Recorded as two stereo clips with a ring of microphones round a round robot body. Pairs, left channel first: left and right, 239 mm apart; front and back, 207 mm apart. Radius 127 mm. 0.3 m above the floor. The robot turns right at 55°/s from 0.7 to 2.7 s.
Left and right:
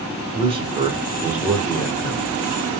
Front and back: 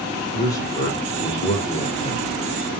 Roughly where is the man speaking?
Ahead right.